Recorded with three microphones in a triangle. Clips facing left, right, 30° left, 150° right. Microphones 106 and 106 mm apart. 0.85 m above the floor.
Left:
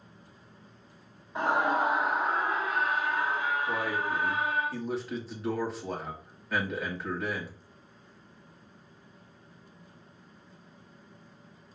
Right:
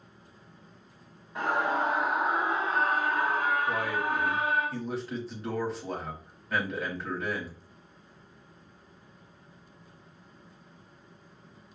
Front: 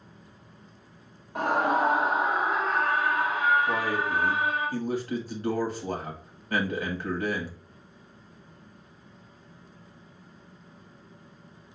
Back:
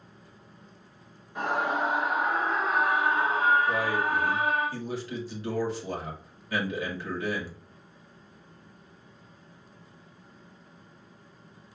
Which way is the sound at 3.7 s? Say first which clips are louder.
Right 1 dB, back 1 dB; straight ahead.